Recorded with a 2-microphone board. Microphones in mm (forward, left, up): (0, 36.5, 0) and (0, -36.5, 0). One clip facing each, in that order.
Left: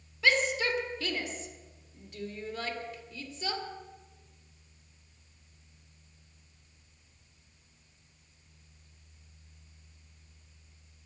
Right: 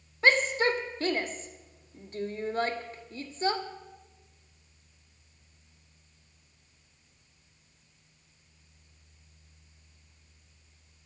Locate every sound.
0.2 s a shout: 45° right (ahead or behind), 1.6 m